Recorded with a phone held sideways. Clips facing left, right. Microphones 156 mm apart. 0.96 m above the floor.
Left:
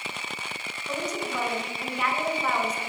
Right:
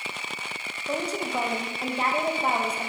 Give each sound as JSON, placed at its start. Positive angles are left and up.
{"t": 0.9, "sound": "a woman speaking", "side_deg": -30, "distance_m": 0.8}